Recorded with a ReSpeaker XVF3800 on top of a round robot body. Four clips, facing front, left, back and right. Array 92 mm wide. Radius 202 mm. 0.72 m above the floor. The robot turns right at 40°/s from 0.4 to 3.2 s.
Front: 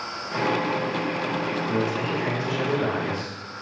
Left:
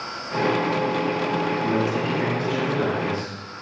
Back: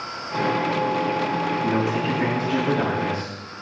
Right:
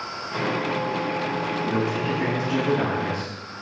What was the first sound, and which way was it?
A man speaking, 160° left.